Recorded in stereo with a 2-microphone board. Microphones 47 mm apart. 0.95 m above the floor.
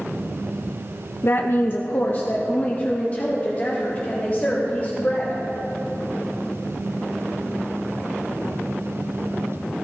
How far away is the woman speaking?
About 0.7 m.